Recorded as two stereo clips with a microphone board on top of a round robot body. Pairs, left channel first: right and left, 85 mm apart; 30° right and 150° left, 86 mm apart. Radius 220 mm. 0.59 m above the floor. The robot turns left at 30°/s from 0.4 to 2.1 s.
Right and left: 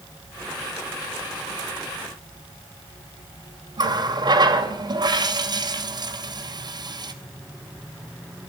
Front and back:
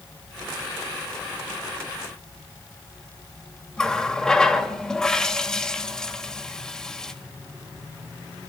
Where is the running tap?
55° left, 3 m.